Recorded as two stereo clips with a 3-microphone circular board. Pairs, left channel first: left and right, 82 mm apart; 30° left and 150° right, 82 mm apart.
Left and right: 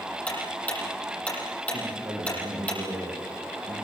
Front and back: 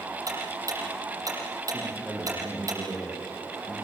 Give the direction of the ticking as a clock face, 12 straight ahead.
7 o'clock.